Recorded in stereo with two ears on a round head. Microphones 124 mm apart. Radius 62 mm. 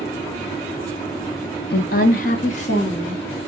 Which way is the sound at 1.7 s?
80° left.